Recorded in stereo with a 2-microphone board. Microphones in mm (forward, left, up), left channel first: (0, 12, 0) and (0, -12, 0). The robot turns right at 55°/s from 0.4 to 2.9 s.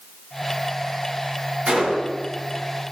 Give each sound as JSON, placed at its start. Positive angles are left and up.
{"t": 1.7, "sound": "a gunshot", "azimuth_deg": -125, "distance_m": 7.0}